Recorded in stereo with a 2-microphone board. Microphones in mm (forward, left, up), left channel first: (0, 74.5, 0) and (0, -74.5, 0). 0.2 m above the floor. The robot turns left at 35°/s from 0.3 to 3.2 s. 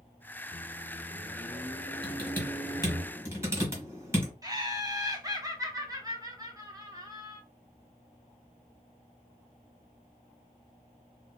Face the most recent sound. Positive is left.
turn(degrees=-25)  # may be behind; listen again after turning